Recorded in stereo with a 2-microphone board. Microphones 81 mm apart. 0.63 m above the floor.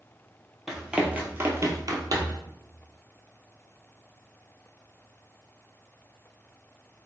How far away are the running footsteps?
About 0.9 m.